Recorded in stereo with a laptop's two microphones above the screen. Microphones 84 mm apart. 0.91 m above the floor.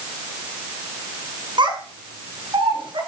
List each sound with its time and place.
1.6 s a child speaking: 65° right (ahead or behind), 5.5 m; by 3.0 s 75° right (ahead or behind), 7 m